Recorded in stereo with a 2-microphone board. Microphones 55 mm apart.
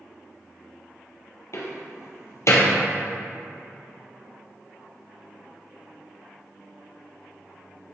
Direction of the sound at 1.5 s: 60° left (ahead or behind).